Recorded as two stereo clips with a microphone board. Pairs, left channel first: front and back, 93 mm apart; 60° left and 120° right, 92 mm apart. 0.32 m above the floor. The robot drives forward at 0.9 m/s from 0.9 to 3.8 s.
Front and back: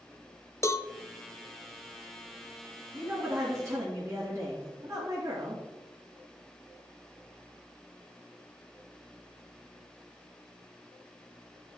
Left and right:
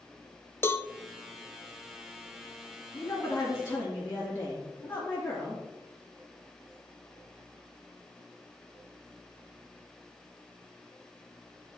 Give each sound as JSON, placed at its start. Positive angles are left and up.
{"t": 0.6, "sound": "a cowbell", "azimuth_deg": 20, "distance_m": 0.5}
{"t": 2.9, "sound": "a woman speaking", "azimuth_deg": 115, "distance_m": 4.0}